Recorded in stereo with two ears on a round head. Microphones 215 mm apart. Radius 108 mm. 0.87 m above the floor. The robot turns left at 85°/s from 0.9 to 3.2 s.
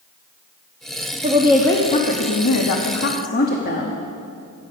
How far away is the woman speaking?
About 1.1 m.